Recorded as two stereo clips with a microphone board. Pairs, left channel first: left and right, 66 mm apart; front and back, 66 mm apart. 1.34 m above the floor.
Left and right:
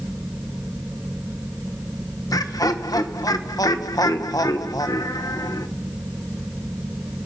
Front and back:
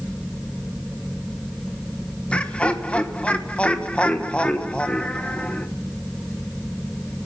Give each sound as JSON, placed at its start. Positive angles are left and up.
{"t": 2.3, "sound": "laughter", "azimuth_deg": 70, "distance_m": 1.3}